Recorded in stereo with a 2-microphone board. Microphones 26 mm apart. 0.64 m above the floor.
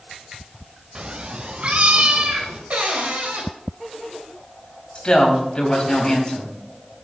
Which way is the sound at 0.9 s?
40° right (ahead or behind).